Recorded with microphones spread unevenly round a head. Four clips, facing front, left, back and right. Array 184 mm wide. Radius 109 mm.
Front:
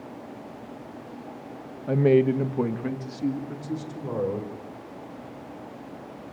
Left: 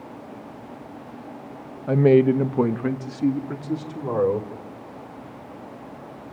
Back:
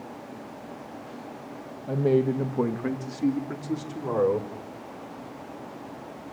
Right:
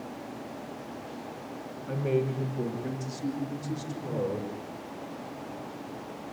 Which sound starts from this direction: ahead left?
A man speaking, at 1.9 s.